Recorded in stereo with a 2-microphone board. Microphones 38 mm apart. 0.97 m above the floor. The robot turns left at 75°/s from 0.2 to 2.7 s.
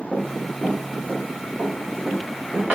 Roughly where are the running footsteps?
Left.